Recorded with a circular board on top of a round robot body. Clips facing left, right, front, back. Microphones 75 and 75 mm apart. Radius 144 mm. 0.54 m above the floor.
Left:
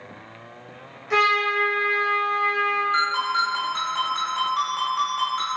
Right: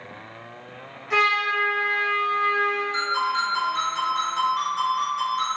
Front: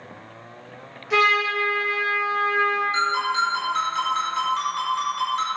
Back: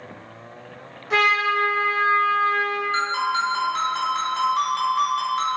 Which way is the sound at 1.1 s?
165° left.